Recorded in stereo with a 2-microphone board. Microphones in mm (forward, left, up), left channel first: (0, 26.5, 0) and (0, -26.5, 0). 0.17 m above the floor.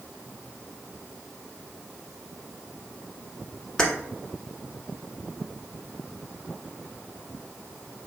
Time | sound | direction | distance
3.8 | keys jangling | 15° left (ahead or behind) | 1.1 m